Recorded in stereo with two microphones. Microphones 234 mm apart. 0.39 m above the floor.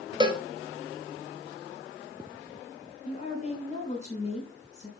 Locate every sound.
0.2 s a cowbell: 20° right (ahead or behind), 1.2 m
3.0 s a woman speaking: 30° left (ahead or behind), 4.5 m